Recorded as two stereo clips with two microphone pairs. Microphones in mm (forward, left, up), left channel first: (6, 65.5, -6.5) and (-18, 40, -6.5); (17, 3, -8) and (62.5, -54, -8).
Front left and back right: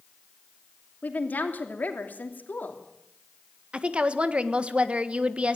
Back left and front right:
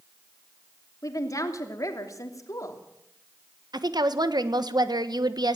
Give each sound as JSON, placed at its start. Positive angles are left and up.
{"t": 1.0, "sound": "a woman speaking", "azimuth_deg": 85, "distance_m": 3.0}
{"t": 3.7, "sound": "a woman speaking", "azimuth_deg": -75, "distance_m": 1.5}